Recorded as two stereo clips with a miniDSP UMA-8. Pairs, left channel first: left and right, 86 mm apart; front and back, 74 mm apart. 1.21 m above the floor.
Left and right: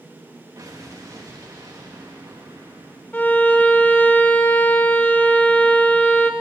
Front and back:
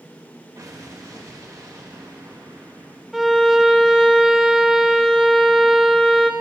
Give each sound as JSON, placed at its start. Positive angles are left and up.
{"t": 0.6, "sound": "an explosion", "azimuth_deg": -140, "distance_m": 1.6}
{"t": 3.1, "sound": "a violin", "azimuth_deg": 100, "distance_m": 0.9}